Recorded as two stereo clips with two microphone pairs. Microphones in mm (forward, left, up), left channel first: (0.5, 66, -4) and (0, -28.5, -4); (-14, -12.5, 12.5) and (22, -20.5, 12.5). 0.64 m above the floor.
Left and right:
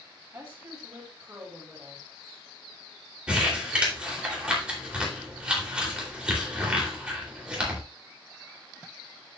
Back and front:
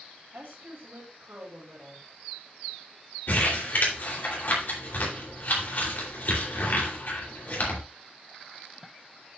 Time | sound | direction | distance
0.3 | a woman speaking | 35° right | 3 m
3.3 | crumpling | 170° right | 3 m